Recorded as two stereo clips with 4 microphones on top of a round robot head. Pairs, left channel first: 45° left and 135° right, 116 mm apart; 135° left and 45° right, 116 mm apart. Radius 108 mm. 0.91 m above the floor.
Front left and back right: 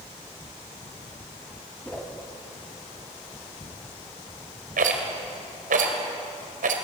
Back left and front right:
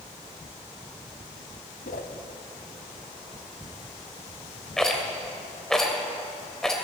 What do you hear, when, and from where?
1.9 s a whoosh: 125° left, 1.3 m
4.8 s a rattle: 135° right, 2 m